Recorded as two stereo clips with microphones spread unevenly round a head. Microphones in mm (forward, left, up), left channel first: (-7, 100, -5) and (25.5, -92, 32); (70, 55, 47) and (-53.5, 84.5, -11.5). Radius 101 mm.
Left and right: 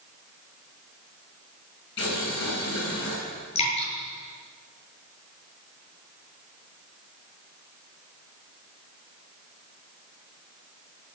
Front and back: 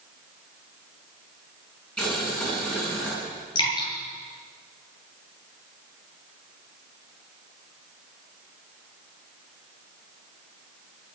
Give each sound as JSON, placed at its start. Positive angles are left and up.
{"t": 2.0, "sound": "boiling", "azimuth_deg": 65, "distance_m": 8.5}
{"t": 3.5, "sound": "dripping", "azimuth_deg": 40, "distance_m": 10.0}